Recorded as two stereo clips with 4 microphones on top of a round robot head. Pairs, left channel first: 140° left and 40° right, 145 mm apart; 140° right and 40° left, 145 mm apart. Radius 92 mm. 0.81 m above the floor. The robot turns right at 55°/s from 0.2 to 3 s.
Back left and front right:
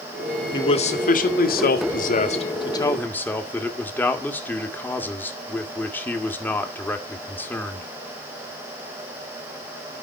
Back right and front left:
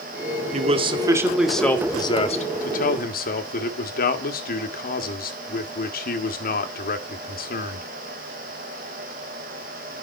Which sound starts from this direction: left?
A man speaking, at 0.5 s.